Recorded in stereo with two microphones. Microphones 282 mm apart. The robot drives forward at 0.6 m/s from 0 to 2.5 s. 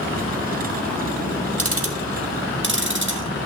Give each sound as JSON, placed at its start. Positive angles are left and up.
{"t": 1.6, "sound": "ticking", "side_deg": -55, "distance_m": 1.4}